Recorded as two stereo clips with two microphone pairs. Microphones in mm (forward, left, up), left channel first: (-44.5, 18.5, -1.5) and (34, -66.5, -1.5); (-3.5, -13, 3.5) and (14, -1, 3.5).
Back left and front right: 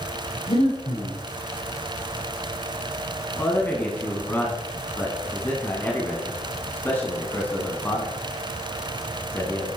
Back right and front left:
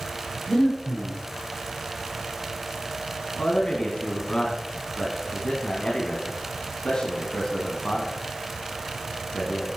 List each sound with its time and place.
0.5 s breathing: 155° left, 5.5 m
3.4 s a man speaking: 165° right, 1.8 m